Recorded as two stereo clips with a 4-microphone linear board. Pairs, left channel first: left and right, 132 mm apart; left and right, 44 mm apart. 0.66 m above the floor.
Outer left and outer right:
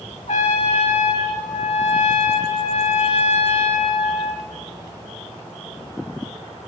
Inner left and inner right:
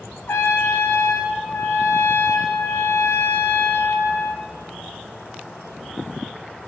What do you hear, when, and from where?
0.3 s a trumpet: 60° left (ahead or behind), 1.3 m